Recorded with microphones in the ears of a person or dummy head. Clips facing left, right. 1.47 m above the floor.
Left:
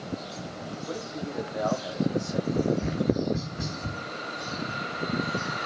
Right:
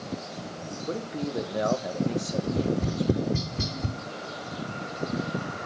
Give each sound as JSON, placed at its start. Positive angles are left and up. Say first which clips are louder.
{"t": 0.9, "sound": "a man speaking", "louder": "right 5 dB", "side_deg": -35, "distance_m": 2.0}
{"t": 2.4, "sound": "tapping", "louder": "even", "side_deg": -50, "distance_m": 4.5}